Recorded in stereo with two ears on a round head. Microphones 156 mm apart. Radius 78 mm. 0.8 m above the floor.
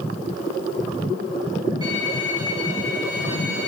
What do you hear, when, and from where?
1.8 s a violin: 25° right (ahead or behind), 6.5 m